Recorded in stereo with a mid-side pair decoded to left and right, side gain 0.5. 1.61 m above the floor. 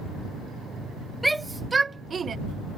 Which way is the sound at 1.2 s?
5° right.